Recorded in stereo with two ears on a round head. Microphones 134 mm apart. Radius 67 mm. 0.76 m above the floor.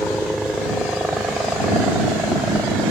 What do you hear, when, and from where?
0.0 s a helicopter: centre (ahead or behind); by 2.9 s 10° right (ahead or behind)